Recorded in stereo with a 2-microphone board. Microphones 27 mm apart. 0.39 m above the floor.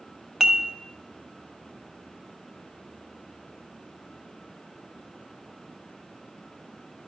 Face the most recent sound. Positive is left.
turn(degrees=-15)  # may be behind; listen again after turning